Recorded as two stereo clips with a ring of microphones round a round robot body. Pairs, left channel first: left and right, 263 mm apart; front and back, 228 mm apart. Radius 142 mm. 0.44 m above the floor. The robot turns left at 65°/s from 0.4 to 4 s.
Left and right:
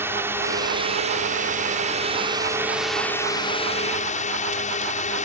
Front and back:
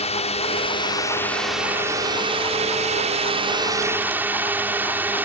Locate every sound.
0.0 s a drone: 20° right; by 5.3 s 105° left